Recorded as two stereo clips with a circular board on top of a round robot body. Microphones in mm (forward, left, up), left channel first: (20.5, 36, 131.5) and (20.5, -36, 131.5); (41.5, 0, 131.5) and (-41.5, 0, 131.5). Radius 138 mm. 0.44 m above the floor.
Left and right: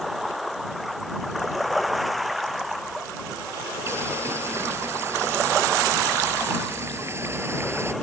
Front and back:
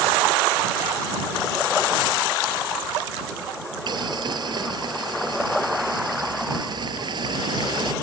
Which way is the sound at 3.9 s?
145° right.